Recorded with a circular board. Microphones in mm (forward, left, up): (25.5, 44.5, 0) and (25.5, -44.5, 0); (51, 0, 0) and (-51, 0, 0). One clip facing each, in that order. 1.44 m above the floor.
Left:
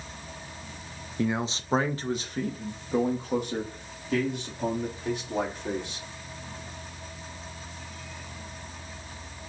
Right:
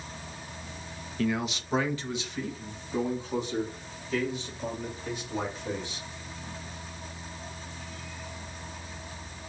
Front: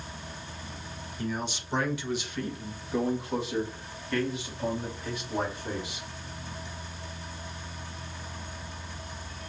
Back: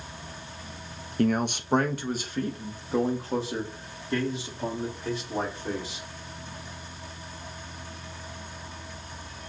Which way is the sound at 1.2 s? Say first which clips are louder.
Left 1 dB, back 9 dB; 160° left.